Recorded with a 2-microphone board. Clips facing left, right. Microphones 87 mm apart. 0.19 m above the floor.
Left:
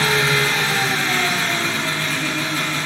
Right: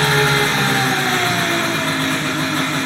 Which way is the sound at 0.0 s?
45° right (ahead or behind).